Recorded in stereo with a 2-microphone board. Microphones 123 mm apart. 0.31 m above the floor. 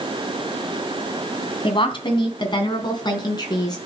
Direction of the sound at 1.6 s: 45° left (ahead or behind).